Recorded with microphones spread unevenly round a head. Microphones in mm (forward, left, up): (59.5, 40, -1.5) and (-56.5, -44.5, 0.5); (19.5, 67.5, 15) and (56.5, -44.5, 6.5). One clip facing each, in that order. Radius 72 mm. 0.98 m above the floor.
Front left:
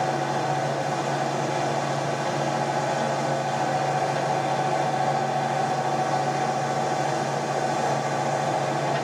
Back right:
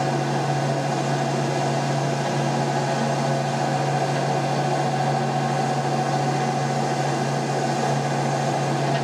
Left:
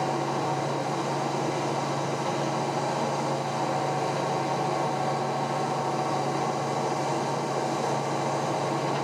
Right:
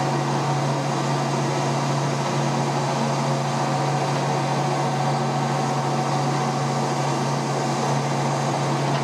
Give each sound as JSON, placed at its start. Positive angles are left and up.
{"t": 0.0, "sound": "a machine running", "azimuth_deg": -100, "distance_m": 0.9}